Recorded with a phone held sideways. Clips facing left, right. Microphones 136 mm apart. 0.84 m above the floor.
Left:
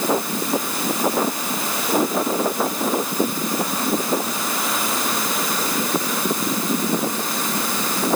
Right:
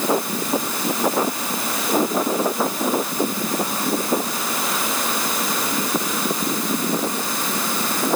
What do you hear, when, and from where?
Only background noise.